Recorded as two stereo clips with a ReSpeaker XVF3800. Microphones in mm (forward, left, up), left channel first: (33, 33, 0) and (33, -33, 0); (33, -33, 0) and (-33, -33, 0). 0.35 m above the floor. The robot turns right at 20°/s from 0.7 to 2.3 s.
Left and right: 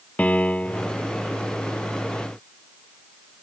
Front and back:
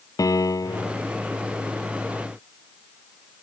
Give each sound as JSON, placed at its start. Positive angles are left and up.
{"t": 0.2, "sound": "a piano", "azimuth_deg": 20}